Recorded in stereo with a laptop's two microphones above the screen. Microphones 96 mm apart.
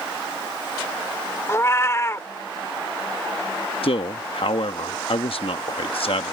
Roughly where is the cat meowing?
Left.